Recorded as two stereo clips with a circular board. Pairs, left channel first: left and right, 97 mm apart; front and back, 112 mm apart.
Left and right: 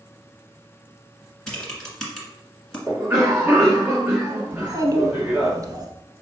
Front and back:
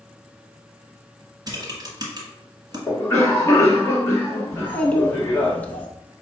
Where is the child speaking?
65° right, 0.7 m.